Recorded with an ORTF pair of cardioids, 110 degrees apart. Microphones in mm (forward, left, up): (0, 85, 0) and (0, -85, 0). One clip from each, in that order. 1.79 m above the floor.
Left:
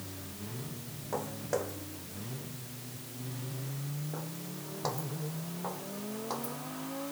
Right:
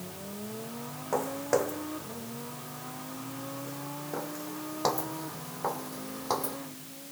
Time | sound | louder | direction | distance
1.1 | footsteps | right 6 dB | 35° right | ?